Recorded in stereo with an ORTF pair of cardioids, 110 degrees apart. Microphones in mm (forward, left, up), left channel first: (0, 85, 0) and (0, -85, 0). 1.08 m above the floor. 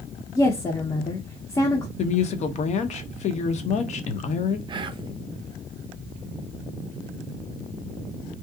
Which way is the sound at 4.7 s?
30° right.